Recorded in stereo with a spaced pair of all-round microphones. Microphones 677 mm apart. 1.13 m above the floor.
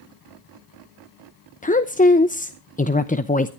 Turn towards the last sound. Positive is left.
turn(degrees=15)  # may be behind; listen again after turning